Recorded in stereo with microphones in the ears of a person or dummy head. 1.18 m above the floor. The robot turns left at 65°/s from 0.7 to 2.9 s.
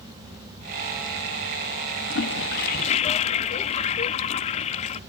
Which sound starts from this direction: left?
A toilet flushing, at 2.1 s.